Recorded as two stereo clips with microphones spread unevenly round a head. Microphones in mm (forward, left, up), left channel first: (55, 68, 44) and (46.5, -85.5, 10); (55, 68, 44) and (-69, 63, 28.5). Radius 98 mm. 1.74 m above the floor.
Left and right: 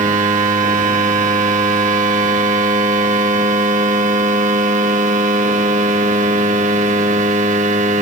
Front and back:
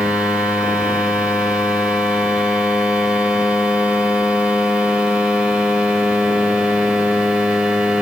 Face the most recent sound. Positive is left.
turn(degrees=-85)